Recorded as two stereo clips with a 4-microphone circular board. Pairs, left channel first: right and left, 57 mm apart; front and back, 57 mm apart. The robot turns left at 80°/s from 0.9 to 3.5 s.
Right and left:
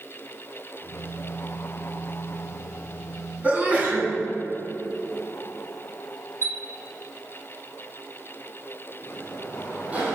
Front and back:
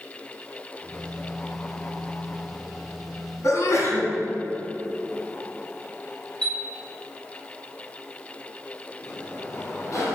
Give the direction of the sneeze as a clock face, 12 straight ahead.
11 o'clock.